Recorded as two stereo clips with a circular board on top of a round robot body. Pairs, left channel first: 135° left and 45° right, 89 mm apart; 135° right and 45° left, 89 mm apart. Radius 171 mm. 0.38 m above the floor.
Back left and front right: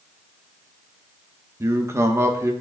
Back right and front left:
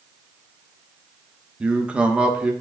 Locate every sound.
1.6 s a man speaking: 20° right, 1.2 m